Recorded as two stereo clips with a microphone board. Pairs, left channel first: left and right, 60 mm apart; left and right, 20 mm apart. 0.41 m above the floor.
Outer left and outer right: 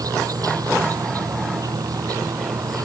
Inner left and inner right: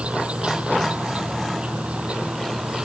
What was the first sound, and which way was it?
An insect, 85° right.